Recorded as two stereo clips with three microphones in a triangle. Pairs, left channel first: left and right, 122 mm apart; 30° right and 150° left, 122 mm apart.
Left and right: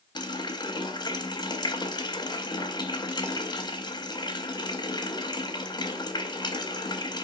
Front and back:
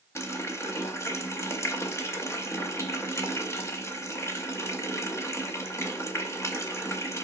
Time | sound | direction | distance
0.1 | a running tap | 35° left | 0.5 m